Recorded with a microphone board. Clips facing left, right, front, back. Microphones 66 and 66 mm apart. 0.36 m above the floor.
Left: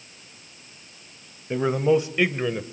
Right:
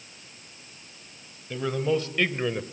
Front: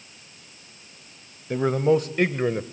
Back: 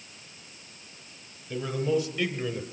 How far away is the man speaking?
About 1.5 m.